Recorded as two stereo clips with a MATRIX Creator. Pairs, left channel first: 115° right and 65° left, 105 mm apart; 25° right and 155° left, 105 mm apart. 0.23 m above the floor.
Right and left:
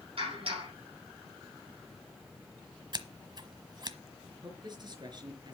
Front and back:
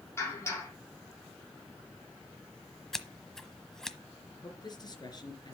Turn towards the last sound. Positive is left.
turn(degrees=25)